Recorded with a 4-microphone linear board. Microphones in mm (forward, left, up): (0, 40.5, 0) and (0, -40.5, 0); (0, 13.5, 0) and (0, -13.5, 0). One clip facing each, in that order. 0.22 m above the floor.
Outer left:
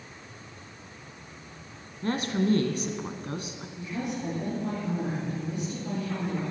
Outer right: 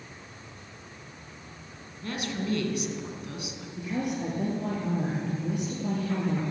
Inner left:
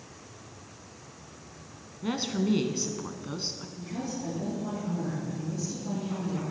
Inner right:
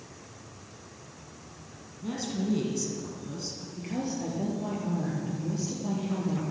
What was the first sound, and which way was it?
A woman speaking, 40° left (ahead or behind).